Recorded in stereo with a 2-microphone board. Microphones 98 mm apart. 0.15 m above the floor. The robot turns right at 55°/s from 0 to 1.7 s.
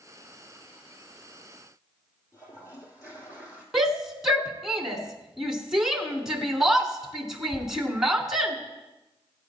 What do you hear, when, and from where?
2.3 s a toilet flushing: 35° left (ahead or behind), 2.5 m
3.7 s a shout: 5° right (ahead or behind), 1.4 m